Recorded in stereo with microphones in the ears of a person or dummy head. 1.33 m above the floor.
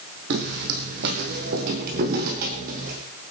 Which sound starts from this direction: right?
Footsteps, at 0.3 s.